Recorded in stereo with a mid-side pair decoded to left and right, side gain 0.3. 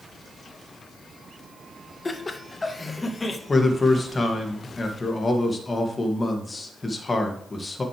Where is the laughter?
35° left, 1.5 m.